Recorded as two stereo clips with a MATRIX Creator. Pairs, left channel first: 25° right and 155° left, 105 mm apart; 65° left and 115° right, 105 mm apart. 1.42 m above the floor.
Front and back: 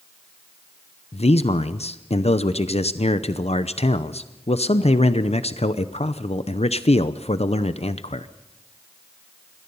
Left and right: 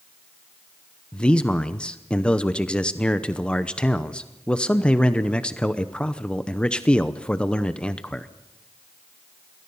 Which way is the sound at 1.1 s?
15° right.